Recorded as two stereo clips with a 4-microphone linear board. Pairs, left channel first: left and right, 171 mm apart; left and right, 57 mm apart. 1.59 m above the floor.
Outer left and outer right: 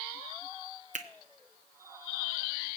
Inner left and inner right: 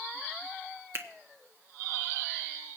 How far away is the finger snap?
About 1.1 m.